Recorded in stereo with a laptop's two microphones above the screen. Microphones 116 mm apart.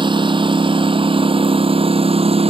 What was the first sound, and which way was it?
A lawn mower, 45° right (ahead or behind).